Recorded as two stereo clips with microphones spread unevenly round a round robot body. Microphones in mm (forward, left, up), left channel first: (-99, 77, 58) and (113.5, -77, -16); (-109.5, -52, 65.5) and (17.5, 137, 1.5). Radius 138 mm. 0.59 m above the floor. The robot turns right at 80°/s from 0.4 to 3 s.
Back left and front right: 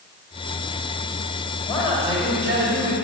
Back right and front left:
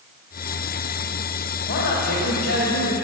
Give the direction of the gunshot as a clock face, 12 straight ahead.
I don't hear a gunshot.